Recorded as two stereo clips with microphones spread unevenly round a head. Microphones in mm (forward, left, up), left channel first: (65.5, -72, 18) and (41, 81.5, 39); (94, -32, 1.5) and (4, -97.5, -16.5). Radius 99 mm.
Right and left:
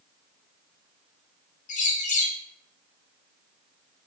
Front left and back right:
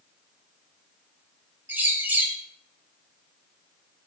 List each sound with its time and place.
1.7 s a bird: 80° right, 0.8 m